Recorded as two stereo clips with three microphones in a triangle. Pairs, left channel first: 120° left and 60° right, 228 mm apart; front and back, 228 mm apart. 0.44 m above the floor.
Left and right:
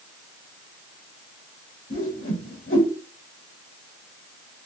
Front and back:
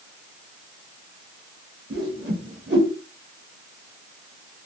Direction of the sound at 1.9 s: 145° left.